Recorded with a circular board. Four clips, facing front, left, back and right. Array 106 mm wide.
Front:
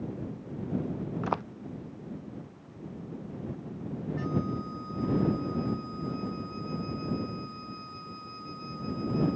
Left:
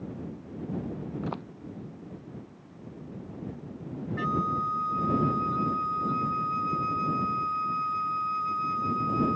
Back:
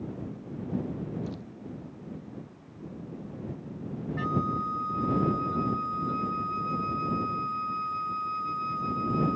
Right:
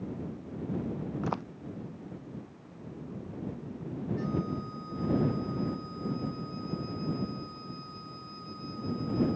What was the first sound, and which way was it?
Footsteps, 15° right.